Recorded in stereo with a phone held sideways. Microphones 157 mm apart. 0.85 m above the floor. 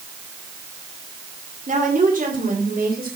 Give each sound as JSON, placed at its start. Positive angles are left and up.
{"t": 1.7, "sound": "a woman speaking", "side_deg": -50, "distance_m": 2.5}